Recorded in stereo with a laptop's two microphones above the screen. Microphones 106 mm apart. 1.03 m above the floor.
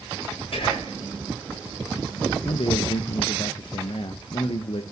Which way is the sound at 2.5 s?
65° left (ahead or behind).